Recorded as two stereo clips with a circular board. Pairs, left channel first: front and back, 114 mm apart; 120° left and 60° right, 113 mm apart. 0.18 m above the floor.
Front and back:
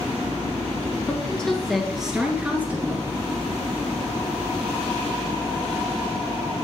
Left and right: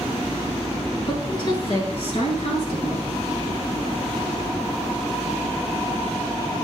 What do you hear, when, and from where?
1.1 s a woman speaking: 75° left, 2 m; by 3.1 s 110° left, 2.5 m